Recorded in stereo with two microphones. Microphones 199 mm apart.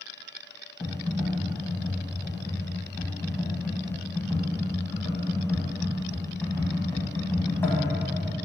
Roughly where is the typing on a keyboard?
Centre.